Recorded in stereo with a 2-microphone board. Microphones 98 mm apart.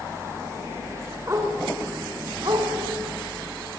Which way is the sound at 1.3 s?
35° right (ahead or behind).